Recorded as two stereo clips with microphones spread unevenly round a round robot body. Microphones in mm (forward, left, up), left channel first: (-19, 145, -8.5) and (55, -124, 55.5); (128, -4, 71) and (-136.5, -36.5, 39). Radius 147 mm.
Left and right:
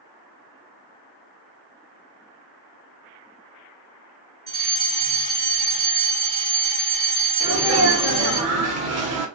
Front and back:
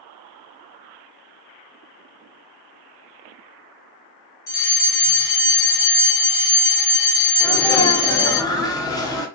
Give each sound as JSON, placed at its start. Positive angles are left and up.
{"t": 4.5, "sound": "a fire alarm", "azimuth_deg": 0, "distance_m": 2.5}
{"t": 7.4, "sound": "a sneeze", "azimuth_deg": -70, "distance_m": 1.0}